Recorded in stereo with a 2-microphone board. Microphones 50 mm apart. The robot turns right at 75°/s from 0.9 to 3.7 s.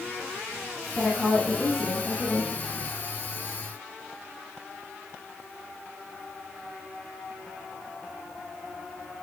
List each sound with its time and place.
0.9 s a woman speaking: 165° right, 4 m; by 2.5 s 50° right, 4 m